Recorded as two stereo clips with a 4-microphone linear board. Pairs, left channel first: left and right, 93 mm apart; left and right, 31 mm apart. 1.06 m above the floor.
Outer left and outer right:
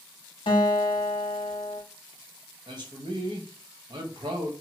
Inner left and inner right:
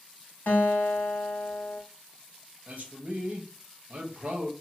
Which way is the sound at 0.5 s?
70° left (ahead or behind).